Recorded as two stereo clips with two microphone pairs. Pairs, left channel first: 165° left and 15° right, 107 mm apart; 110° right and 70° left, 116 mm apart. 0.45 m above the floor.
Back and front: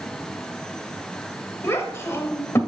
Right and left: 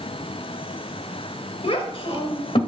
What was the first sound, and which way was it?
A child speaking, 135° right.